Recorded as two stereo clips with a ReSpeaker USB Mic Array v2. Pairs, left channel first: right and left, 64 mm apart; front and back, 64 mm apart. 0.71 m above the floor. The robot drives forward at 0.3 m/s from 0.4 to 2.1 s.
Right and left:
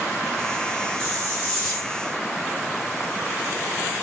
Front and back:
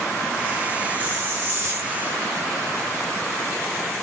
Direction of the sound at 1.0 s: 155° right.